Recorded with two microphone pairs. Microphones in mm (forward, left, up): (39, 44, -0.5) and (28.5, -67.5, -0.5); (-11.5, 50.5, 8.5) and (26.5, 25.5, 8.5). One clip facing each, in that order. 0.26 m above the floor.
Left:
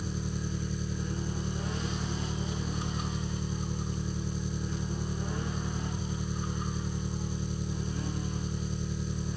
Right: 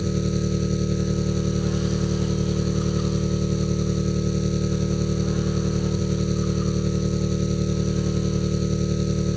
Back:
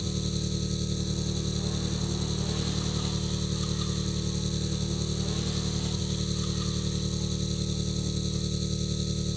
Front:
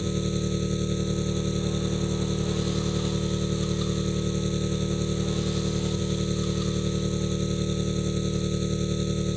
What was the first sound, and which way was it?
An engine running, 90° right.